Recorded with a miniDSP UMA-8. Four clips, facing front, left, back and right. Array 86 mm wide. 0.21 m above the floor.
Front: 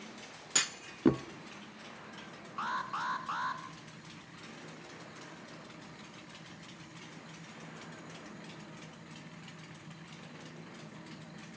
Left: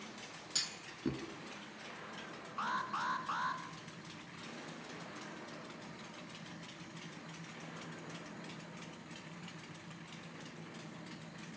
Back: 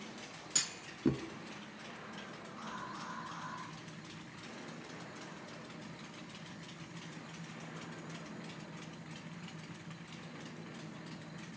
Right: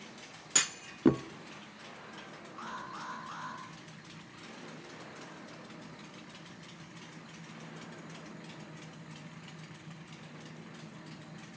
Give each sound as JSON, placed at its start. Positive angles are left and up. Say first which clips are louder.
{"t": 0.6, "sound": "a clunk", "louder": "right 14 dB, front 9 dB", "azimuth_deg": -55, "distance_m": 0.7}
{"t": 2.6, "sound": "an alarm", "louder": "left 5 dB, front 10 dB", "azimuth_deg": 25, "distance_m": 3.0}